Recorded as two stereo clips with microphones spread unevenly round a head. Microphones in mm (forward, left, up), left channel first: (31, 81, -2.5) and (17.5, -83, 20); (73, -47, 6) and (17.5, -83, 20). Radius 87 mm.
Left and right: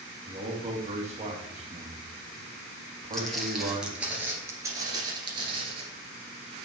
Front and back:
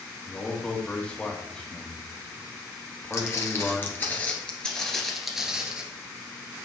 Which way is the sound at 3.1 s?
10° right.